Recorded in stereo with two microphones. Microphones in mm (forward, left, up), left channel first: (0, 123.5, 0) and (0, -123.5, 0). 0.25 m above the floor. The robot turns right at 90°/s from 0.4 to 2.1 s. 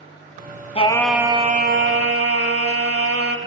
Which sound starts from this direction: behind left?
Singing, at 0.8 s.